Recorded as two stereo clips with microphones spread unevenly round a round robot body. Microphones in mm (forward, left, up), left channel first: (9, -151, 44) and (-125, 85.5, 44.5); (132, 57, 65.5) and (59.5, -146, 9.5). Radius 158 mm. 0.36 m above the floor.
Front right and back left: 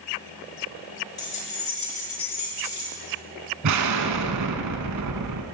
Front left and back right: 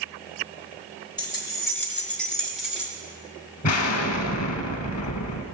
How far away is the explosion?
About 0.7 m.